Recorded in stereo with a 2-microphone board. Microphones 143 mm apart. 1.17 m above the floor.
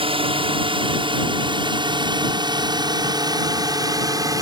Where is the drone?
40° right (ahead or behind); by 4.4 s 25° right (ahead or behind).